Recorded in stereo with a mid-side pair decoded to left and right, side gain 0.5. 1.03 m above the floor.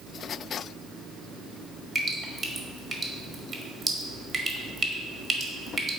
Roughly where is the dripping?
Ahead right.